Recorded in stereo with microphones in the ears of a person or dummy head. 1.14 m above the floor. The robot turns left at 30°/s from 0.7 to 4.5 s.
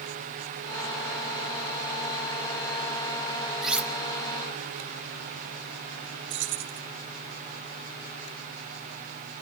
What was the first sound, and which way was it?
Cutlery clinking, 5° right (ahead or behind).